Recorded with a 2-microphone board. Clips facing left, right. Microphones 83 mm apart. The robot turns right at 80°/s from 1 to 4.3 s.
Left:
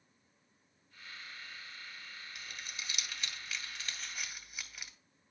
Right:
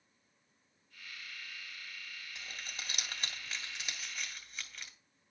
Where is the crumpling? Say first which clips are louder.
Right 1 dB; 25° right (ahead or behind), 1.9 m; by 4.9 s 10° left (ahead or behind), 1.9 m.